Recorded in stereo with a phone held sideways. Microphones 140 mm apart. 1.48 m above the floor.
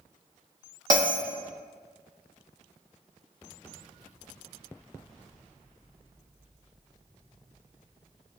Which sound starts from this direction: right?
A bell, at 0.9 s.